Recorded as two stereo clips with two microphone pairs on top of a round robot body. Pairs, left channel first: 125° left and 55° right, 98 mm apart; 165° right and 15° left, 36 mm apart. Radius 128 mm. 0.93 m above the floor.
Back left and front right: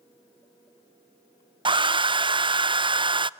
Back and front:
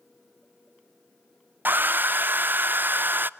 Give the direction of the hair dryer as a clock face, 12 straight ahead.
1 o'clock.